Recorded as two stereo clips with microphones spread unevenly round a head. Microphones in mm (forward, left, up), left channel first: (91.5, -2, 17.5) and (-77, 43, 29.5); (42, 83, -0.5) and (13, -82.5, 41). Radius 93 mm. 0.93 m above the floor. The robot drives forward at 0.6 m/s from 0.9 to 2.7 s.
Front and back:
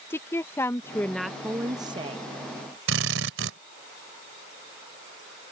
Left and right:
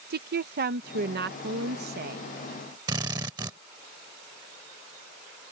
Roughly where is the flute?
No flute in this recording.